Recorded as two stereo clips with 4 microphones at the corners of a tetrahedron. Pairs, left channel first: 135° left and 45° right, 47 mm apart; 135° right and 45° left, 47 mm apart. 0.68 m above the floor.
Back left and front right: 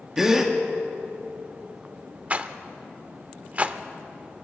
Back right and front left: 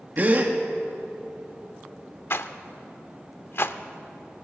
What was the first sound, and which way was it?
A gasp, 30° left.